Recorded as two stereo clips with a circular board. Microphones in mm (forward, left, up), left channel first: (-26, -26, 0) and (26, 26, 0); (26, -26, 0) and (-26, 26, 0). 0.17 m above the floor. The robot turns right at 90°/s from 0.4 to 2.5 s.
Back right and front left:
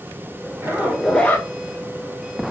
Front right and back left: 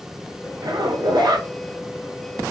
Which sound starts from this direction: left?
A zipper, at 0.6 s.